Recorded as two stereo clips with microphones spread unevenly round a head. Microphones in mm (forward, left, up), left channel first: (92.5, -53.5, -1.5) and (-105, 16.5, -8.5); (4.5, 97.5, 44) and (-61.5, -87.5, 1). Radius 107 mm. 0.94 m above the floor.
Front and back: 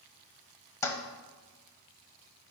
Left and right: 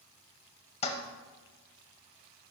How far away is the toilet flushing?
About 0.9 m.